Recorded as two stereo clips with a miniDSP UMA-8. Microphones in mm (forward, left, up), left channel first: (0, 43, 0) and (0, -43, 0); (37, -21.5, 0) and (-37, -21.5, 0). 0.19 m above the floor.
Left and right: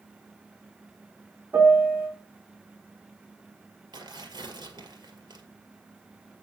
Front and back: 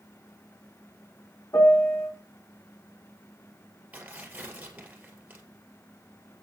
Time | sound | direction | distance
1.5 | a piano | 35° right | 1.4 m
3.9 | tearing paper | 110° right | 2 m